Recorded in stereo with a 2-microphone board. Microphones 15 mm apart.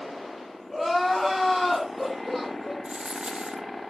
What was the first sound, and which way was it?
Crying, 5° left (ahead or behind).